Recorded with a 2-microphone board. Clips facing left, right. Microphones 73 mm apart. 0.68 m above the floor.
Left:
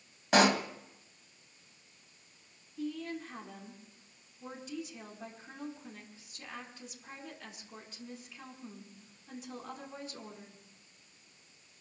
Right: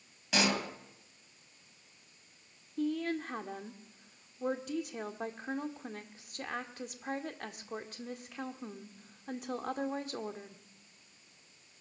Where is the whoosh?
I don't hear a whoosh.